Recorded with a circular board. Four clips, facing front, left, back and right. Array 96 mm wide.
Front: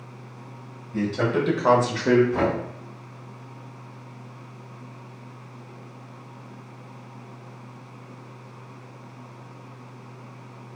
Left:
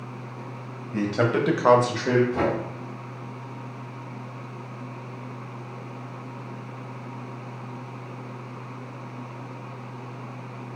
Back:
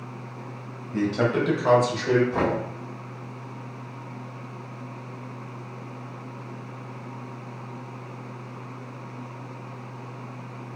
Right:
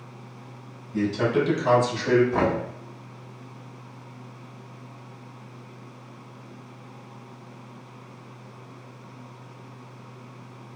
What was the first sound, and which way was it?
A man speaking, 115° left.